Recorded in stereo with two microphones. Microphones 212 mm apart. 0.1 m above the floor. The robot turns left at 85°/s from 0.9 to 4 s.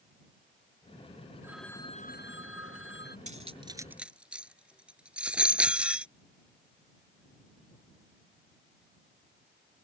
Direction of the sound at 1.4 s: 165° right.